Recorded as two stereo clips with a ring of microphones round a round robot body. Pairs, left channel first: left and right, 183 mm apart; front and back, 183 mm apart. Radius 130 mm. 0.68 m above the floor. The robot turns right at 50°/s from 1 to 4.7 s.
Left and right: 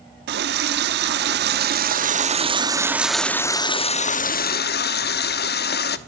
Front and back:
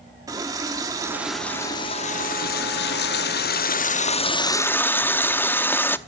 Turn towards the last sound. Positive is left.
turn(degrees=80)